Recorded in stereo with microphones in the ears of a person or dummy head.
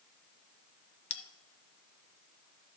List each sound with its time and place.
1.1 s a bell: 40° left (ahead or behind), 1.0 m